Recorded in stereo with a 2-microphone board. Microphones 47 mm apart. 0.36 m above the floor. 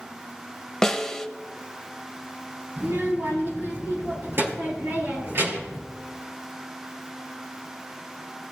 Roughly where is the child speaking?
Right.